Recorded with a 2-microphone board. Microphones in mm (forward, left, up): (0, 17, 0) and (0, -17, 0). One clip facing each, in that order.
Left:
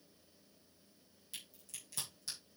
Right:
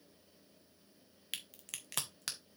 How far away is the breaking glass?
I don't hear breaking glass.